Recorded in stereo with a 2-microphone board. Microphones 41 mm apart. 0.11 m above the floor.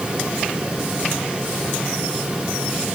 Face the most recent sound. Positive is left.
No sound to turn to.